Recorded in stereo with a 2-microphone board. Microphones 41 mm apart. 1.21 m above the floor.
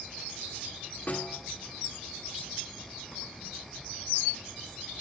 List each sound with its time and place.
1.1 s a snare drum: 40° left (ahead or behind), 1.7 m